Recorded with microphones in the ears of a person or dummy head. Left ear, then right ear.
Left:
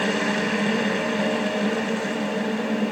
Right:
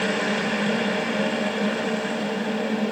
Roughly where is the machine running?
Centre.